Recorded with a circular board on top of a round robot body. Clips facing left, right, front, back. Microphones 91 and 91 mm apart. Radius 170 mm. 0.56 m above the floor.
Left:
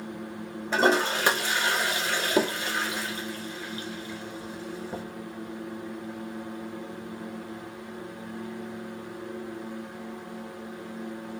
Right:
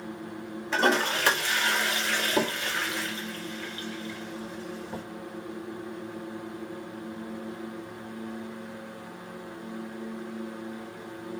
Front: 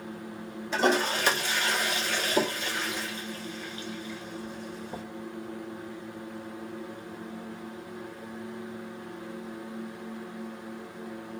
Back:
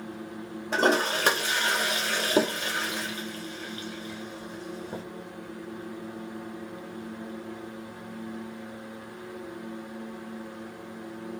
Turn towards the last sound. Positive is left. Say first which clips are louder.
# left 2 dB, back 1 dB
turn(degrees=155)